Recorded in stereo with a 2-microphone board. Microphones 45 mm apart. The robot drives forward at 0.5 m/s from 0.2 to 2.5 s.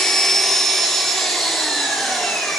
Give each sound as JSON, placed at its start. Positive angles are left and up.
{"t": 0.0, "sound": "an engine running", "side_deg": 10, "distance_m": 1.1}